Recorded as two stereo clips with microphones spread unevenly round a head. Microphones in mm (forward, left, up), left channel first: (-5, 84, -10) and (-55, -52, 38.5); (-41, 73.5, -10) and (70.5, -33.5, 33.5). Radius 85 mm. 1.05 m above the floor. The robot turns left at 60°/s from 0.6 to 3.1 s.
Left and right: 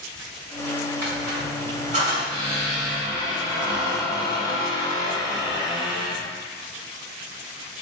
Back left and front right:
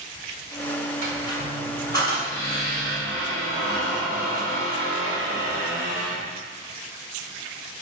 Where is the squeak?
90° right, 3.5 m; by 6.2 s 145° left, 3.5 m.